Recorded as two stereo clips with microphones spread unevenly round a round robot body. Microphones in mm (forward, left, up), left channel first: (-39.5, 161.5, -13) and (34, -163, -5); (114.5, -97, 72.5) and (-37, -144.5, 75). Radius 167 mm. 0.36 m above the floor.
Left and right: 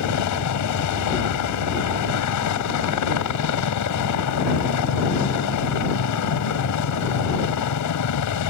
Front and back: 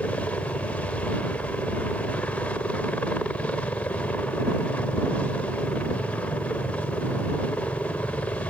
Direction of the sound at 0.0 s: 100° left.